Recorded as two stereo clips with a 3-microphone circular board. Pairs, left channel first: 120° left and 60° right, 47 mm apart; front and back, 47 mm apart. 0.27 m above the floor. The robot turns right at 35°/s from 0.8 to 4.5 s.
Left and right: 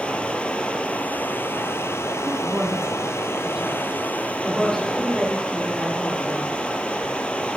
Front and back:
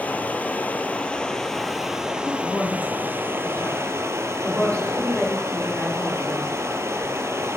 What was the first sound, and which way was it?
Running water, 55° left.